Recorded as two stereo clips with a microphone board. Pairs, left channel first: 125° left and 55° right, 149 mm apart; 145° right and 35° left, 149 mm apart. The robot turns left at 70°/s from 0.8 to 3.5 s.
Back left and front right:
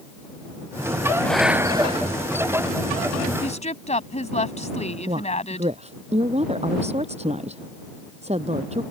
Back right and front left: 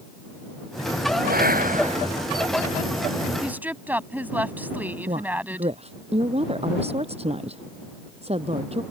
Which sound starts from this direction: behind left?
A woman speaking, at 3.4 s.